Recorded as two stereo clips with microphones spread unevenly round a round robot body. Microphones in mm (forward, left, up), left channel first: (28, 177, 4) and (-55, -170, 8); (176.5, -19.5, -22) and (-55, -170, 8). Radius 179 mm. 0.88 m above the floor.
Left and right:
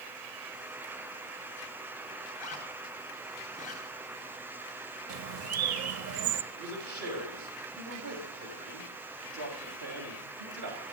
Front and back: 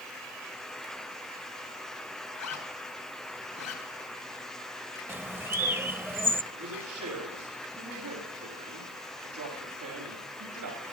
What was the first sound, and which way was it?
A zipper, 5° left.